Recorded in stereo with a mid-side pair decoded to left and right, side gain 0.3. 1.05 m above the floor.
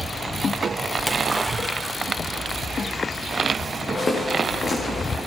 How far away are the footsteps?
About 5.5 m.